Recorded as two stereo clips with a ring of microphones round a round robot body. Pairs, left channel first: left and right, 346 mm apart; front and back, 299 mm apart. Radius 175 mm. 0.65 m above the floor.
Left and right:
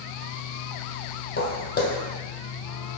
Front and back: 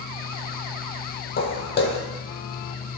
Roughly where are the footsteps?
Ahead left.